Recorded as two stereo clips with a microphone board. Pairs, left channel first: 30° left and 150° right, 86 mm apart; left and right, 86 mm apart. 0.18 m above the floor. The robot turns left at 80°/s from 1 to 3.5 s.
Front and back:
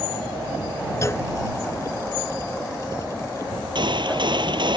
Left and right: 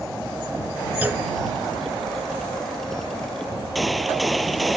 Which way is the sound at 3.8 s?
Straight behind.